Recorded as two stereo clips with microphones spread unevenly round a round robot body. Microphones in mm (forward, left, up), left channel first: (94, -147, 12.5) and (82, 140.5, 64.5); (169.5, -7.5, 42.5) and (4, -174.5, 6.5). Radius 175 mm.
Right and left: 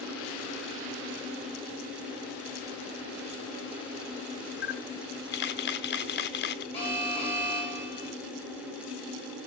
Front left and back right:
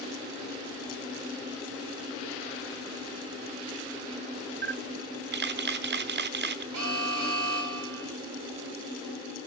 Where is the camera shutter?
120° right, 0.8 m.